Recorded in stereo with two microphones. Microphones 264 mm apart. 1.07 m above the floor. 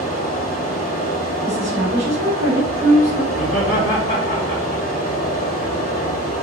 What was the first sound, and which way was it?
Running water, 35° left (ahead or behind).